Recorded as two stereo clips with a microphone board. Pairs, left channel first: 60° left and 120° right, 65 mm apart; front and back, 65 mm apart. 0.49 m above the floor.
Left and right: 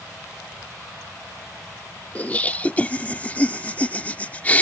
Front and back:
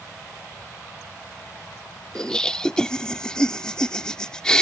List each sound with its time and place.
2.1 s laughter: 60° left